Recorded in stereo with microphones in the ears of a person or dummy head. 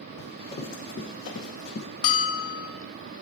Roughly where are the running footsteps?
Left.